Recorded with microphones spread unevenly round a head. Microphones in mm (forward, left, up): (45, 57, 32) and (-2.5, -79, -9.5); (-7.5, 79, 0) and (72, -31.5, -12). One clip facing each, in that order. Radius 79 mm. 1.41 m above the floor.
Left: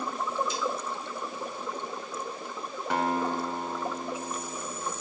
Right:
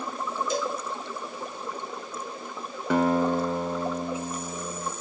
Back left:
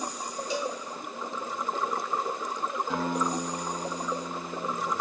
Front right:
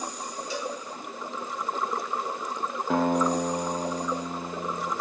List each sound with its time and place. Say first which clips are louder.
0.5 s a cowbell: right 3 dB, back left 2 dB; 160° right, 1.2 m
2.9 s a guitar: right 6 dB, front right 8 dB; 110° right, 1.2 m